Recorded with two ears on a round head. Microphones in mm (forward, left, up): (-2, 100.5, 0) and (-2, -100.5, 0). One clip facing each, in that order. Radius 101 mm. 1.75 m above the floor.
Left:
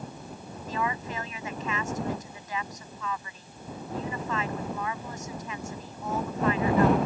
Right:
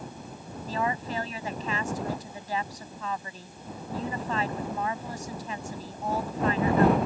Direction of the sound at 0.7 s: 30° right (ahead or behind).